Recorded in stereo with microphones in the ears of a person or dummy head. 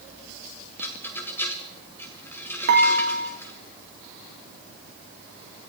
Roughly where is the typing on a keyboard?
No typing on a keyboard in this recording.